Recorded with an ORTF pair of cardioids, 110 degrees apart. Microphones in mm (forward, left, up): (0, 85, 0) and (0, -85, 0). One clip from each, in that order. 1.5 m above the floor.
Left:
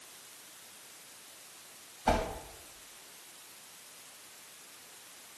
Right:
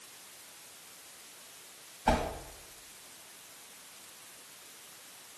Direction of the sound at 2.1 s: Straight ahead.